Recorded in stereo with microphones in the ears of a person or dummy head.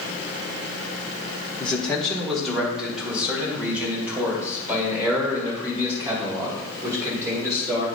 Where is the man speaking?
5° left (ahead or behind), 1.6 m; by 7.8 s 15° right (ahead or behind), 5 m.